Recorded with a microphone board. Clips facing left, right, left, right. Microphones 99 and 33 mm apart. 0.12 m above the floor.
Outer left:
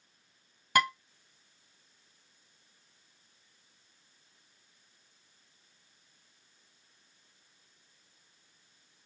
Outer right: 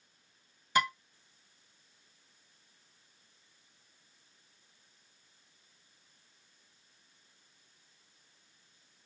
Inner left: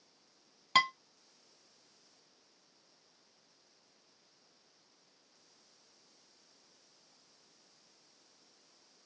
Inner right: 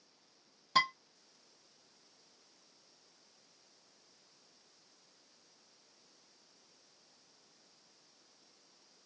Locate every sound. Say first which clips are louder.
0.8 s dishes clattering: outer left 2 dB, inner left 2 dB; 60° left (ahead or behind), 1.7 m